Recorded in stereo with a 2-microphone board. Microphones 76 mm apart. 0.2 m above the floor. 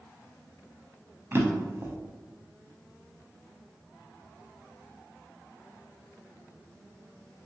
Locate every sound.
1.3 s a drawer: 30° right (ahead or behind), 0.5 m